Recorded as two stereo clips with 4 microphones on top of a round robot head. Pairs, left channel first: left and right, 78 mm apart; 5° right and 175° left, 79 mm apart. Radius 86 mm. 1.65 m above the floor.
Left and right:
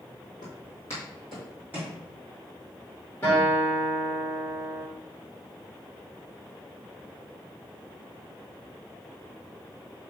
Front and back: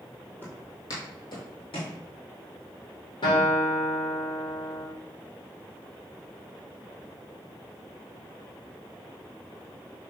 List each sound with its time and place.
0.4 s footsteps: 50° left, 2 m; by 2.0 s 25° right, 2.5 m
3.2 s a guitar: 25° left, 3.5 m